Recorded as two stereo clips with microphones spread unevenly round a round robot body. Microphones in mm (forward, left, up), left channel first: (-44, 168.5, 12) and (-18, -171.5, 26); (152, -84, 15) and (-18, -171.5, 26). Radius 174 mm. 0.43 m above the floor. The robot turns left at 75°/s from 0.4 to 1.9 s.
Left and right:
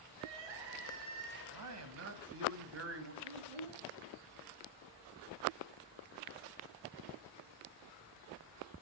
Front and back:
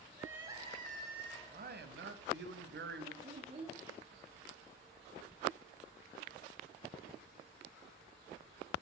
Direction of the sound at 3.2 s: 95° right.